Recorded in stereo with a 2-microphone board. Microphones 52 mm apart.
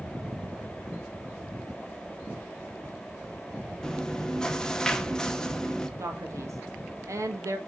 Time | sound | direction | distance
3.8 | chewing | 10° left (ahead or behind) | 0.8 m
6.0 | a man speaking | 60° right (ahead or behind) | 1.6 m